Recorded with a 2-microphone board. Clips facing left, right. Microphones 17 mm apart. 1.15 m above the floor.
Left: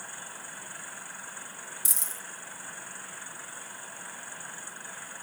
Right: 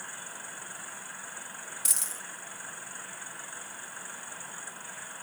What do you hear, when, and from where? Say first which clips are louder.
1.9 s a dropped coin: right 1 dB; 20° right (ahead or behind), 0.7 m